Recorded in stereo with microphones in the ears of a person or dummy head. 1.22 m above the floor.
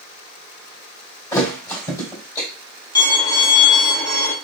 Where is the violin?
20° left (ahead or behind), 1.5 m.